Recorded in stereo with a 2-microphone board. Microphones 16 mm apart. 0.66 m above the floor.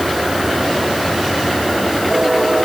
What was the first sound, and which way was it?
Only background noise.